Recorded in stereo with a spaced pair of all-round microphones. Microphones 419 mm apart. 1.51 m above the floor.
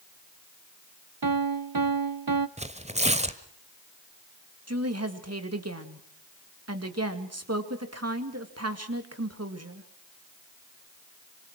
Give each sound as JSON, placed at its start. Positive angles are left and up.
{"t": 1.2, "sound": "a piano", "side_deg": -55, "distance_m": 0.8}
{"t": 2.6, "sound": "tearing paper", "side_deg": -15, "distance_m": 1.4}
{"t": 4.7, "sound": "a woman speaking", "side_deg": -35, "distance_m": 2.5}